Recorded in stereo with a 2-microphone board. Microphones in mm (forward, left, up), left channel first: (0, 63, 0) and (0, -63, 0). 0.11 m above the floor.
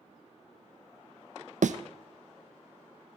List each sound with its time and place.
1.6 s a thud: 80° right, 0.7 m